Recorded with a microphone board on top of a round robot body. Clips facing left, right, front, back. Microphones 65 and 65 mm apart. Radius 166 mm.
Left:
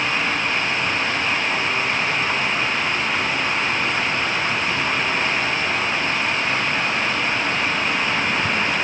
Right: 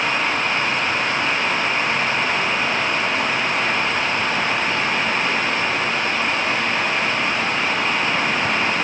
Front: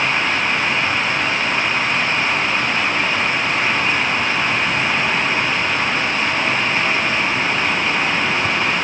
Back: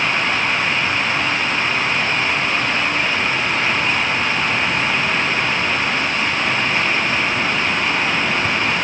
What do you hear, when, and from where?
Only background noise.